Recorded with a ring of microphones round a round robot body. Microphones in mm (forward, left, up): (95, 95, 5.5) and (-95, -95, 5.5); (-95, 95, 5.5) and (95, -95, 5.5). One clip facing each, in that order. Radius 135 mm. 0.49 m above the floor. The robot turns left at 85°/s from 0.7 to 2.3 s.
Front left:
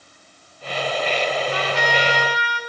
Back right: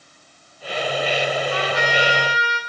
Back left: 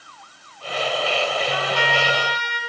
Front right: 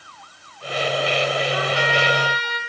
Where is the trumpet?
125° left, 3.5 m; by 2.6 s 55° left, 3.5 m.